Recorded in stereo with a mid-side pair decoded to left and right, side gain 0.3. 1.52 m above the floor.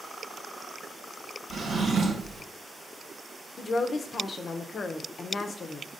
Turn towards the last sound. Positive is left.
turn(degrees=65)